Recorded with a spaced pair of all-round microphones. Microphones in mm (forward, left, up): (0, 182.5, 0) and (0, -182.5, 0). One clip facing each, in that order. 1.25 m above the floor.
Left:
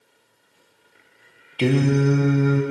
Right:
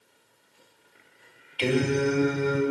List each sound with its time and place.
1.6 s singing: 65° left (ahead or behind), 1.1 m